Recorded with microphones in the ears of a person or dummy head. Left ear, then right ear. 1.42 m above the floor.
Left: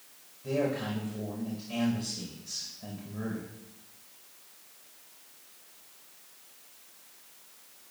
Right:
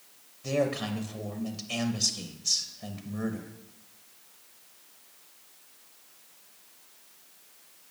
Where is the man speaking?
70° right (ahead or behind), 0.7 m.